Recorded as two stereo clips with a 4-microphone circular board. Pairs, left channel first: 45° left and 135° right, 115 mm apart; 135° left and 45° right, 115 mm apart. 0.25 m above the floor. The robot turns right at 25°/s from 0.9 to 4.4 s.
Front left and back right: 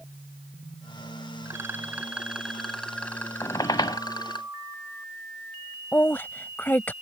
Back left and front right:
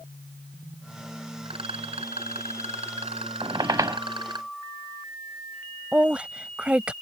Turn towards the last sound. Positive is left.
turn(degrees=15)